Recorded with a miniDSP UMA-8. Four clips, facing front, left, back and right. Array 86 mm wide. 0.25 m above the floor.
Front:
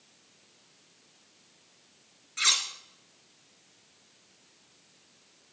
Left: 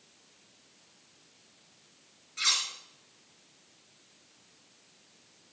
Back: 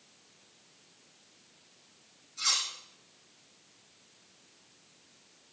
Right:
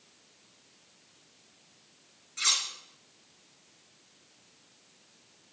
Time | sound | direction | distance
2.4 | cutlery clinking | 5° left | 2.0 m